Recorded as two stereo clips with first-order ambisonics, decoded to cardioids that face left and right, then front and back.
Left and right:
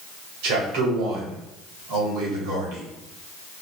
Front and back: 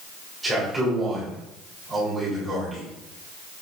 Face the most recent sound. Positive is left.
turn(degrees=-100)